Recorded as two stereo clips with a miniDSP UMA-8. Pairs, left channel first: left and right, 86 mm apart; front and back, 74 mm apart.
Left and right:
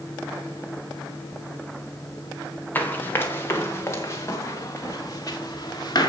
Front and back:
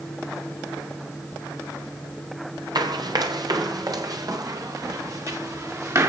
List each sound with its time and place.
2.8 s running footsteps: 160° left, 3 m; by 6.1 s 135° left, 4 m